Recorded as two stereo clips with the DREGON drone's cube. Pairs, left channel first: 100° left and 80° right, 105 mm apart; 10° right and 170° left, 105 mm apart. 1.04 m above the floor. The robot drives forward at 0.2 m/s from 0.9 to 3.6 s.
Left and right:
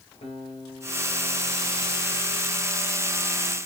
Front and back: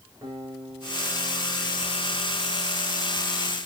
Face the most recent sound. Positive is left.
turn(degrees=110)